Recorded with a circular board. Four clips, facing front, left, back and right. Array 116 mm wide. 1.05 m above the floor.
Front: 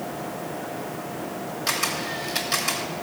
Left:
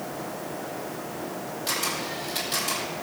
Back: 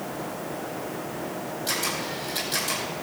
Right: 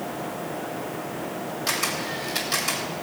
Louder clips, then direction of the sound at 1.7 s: Right 1 dB, front 4 dB; 25° right.